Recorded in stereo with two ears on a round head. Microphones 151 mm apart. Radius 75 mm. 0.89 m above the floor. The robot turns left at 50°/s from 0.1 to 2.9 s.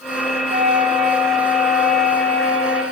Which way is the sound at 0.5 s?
110° right.